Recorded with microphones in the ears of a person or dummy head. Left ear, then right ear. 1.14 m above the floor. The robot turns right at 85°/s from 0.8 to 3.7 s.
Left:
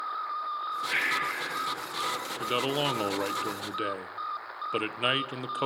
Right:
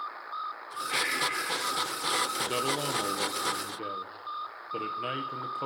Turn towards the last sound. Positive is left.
turn(degrees=110)